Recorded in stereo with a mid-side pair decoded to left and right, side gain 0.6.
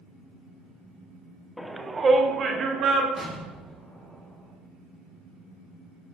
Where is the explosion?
15° right, 2 m.